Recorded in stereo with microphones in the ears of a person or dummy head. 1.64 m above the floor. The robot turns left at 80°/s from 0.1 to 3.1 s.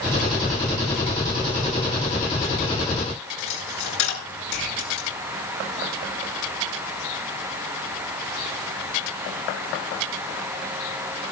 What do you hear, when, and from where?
3.4 s a dropped coin: 80° left, 9.5 m